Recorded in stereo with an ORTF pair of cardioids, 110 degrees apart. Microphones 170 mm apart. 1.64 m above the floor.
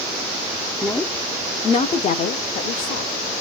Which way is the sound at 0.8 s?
5° left.